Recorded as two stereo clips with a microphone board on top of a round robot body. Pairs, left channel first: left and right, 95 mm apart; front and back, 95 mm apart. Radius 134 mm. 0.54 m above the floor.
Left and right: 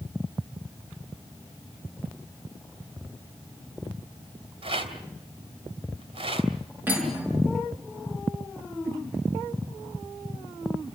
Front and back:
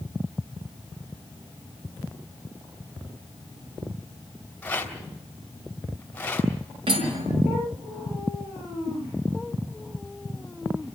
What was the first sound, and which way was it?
A rattle, 75° right.